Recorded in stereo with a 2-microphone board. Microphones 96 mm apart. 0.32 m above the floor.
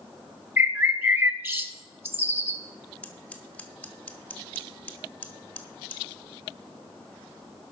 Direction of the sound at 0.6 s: 25° right (ahead or behind).